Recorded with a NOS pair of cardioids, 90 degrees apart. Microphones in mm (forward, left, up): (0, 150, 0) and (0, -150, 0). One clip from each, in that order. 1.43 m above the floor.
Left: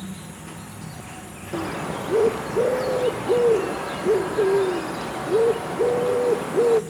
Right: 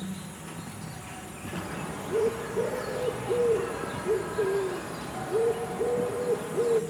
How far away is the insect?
About 1.2 m.